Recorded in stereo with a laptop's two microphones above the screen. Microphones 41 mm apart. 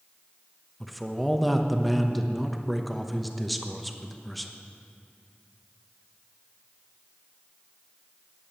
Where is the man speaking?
Centre (ahead or behind), 0.9 m.